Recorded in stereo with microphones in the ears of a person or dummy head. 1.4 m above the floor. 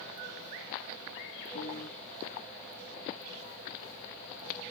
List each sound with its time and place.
1.6 s a piano: 60° left (ahead or behind), 0.6 m